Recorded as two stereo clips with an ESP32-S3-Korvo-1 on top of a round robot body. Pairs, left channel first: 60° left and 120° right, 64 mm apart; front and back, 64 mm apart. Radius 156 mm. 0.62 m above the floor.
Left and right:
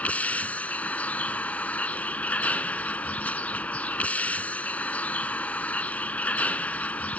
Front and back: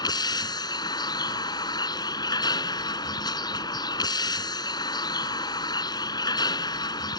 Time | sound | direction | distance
0.0 | a vehicle | 10° right | ?